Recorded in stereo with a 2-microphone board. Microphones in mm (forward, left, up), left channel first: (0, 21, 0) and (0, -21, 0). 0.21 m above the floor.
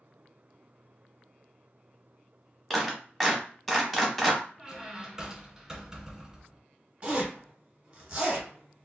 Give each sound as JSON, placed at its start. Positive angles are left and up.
{"t": 2.7, "sound": "a clap", "side_deg": 5, "distance_m": 0.9}
{"t": 4.6, "sound": "a squeak", "side_deg": -5, "distance_m": 1.5}
{"t": 7.0, "sound": "a zipper", "side_deg": -25, "distance_m": 1.3}